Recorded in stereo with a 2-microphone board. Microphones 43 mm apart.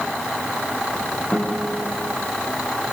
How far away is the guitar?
About 9.5 m.